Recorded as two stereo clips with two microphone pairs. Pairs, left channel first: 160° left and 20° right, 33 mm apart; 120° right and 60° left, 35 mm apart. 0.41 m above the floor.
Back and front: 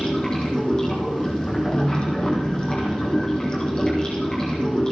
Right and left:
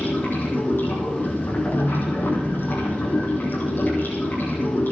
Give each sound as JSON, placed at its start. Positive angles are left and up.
{"t": 0.0, "sound": "running water", "azimuth_deg": -140, "distance_m": 5.5}